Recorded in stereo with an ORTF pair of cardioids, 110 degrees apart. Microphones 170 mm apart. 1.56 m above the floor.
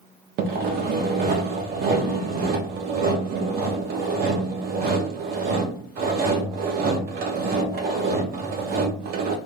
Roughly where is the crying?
I don't hear crying.